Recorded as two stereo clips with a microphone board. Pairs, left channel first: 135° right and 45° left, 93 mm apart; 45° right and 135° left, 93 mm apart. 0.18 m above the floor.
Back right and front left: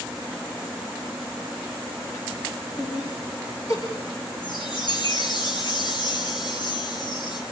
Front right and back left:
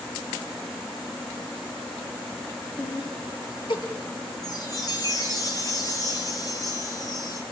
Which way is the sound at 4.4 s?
95° right.